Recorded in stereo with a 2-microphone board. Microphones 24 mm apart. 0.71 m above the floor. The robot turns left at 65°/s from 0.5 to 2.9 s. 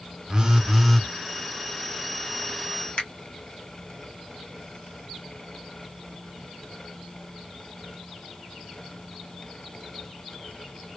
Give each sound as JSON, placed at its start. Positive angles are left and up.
{"t": 0.3, "sound": "a phone buzzing", "azimuth_deg": -150, "distance_m": 0.5}
{"t": 3.0, "sound": "a finger snap", "side_deg": 40, "distance_m": 1.3}